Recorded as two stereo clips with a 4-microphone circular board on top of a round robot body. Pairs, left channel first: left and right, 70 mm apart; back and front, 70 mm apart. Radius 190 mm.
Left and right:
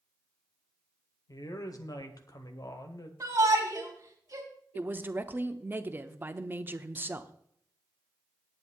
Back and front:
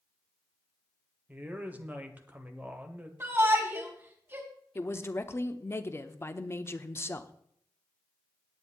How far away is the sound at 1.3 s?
About 1.9 m.